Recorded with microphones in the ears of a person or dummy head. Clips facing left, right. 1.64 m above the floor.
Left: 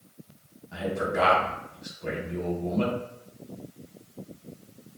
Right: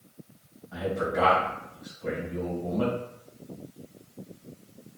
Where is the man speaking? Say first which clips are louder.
Even; 40° left (ahead or behind), 1.6 m.